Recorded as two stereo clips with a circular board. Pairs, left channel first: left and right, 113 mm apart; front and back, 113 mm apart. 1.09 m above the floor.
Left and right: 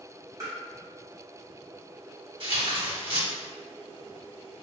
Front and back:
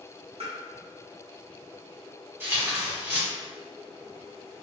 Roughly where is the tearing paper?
Behind right.